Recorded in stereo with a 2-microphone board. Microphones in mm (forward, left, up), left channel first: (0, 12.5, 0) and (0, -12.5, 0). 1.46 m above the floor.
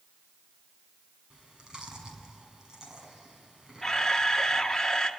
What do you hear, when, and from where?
1.3 s chewing: 30° right (ahead or behind), 5.5 m
3.8 s a camera shutter: 15° left (ahead or behind), 1.7 m